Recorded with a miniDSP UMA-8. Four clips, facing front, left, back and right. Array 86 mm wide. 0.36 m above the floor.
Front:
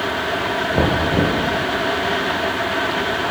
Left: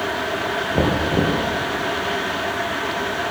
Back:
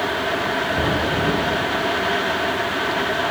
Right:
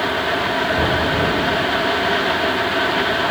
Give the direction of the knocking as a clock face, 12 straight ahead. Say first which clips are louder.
Right 1 dB, front 3 dB; 10 o'clock.